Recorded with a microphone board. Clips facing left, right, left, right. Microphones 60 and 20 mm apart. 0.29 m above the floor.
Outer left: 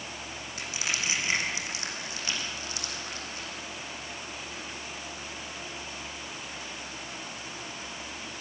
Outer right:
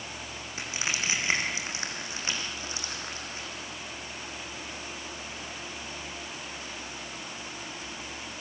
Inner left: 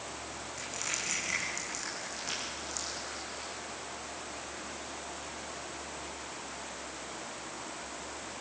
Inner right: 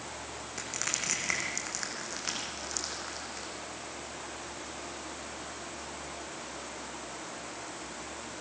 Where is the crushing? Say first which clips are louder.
Outer right 1 dB, inner right 2 dB; 30° right (ahead or behind), 5 m.